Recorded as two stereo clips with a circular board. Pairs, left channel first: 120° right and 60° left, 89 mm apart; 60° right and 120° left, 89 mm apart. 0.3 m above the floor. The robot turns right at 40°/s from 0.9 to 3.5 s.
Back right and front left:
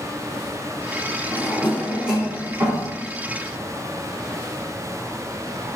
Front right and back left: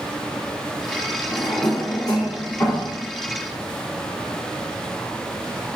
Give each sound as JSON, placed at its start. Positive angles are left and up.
{"t": 1.3, "sound": "a drawer", "azimuth_deg": -50, "distance_m": 1.3}